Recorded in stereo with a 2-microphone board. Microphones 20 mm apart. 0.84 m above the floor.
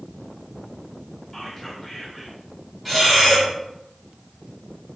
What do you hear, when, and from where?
1.3 s whispering: 5° left (ahead or behind), 2.5 m
2.9 s breathing: 10° right (ahead or behind), 3.5 m